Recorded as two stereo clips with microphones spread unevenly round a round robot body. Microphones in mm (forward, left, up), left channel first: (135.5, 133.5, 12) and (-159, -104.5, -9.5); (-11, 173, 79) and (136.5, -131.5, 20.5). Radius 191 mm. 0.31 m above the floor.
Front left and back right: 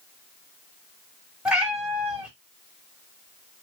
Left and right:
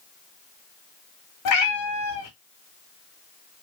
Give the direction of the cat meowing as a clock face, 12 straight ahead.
7 o'clock.